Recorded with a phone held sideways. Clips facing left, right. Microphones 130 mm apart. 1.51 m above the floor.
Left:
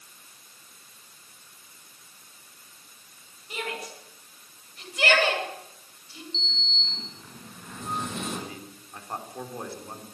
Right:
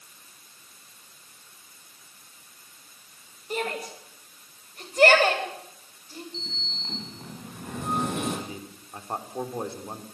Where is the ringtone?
I don't hear a ringtone.